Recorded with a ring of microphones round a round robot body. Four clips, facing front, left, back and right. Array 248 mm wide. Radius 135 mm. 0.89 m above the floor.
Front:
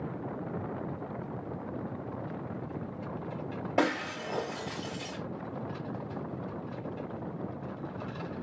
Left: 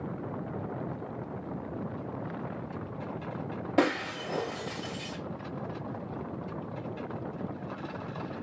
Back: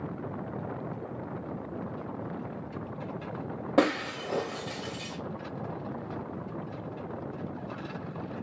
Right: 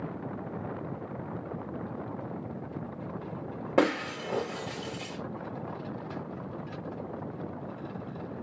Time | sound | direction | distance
3.8 | breaking glass | 135° right | 2.5 m